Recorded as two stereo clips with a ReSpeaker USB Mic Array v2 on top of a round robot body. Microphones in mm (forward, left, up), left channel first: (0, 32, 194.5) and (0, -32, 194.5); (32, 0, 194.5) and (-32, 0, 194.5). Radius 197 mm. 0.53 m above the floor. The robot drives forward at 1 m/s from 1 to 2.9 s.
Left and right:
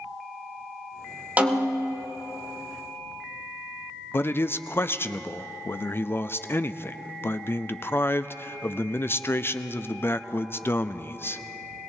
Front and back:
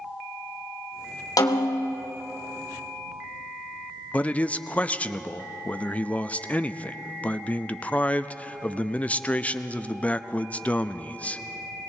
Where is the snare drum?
25° right, 1.6 m; by 2.0 s 35° right, 1.1 m.